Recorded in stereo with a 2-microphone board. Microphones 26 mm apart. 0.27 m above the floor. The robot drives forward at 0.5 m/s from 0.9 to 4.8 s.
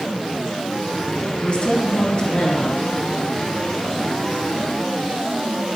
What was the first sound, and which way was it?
A woman speaking, 50° left (ahead or behind).